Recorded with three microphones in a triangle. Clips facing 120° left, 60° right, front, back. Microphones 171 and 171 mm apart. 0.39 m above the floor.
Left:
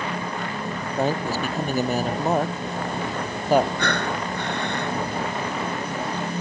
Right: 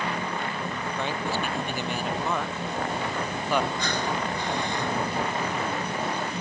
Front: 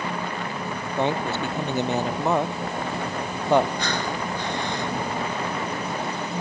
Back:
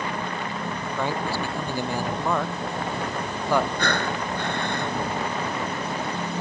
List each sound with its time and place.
1.0 s a man speaking: 70° left
3.8 s breathing: 145° left